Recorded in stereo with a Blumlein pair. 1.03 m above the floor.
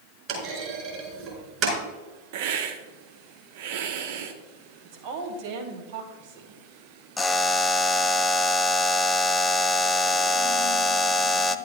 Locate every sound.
0.3 s a clunk: 35° right, 4 m
2.3 s a hiss: 50° right, 1.1 m
4.8 s a woman speaking: 50° right, 2.5 m
7.2 s a buzzer: 10° left, 0.5 m